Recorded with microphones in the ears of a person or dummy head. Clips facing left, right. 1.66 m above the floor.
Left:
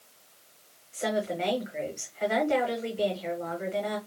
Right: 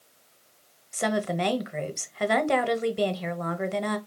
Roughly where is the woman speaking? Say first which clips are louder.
Right 2 dB; right.